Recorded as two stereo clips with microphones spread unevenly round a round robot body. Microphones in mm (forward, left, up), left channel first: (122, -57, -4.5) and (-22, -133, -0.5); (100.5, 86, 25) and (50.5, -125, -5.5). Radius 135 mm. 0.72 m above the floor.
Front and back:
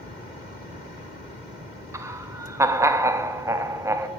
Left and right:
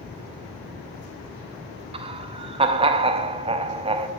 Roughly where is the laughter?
Right.